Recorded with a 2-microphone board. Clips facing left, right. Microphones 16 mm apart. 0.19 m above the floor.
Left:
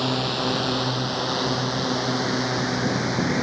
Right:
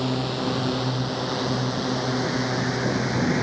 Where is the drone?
30° left (ahead or behind); by 3.4 s 15° left (ahead or behind).